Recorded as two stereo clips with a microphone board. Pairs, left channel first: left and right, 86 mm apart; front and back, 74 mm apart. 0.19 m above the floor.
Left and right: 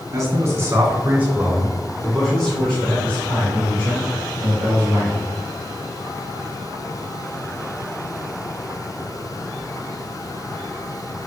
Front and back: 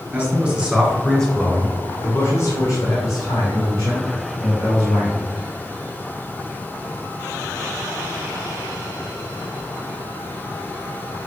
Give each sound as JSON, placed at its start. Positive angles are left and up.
{"t": 0.1, "sound": "a man speaking", "azimuth_deg": -125, "distance_m": 1.6}